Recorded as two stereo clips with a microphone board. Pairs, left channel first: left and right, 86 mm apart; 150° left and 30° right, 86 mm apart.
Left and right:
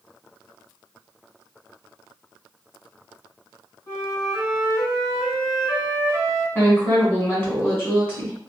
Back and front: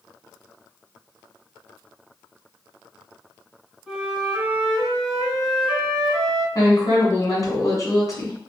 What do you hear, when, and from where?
3.9 s a flute: 55° left, 1.8 m
6.5 s a woman speaking: 145° left, 1.6 m